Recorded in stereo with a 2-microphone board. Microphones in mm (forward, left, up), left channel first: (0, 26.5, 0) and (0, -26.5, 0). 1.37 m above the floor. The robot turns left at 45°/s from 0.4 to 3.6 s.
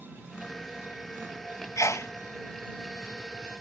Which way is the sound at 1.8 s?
75° left (ahead or behind).